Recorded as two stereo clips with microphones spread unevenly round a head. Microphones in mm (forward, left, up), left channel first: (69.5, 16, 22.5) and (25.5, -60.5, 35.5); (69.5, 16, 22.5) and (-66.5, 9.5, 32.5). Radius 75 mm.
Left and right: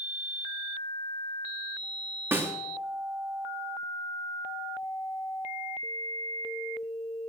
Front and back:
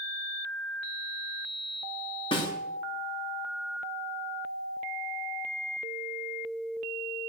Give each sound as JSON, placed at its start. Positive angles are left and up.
{"t": 2.3, "sound": "a snare drum", "azimuth_deg": -55, "distance_m": 3.0}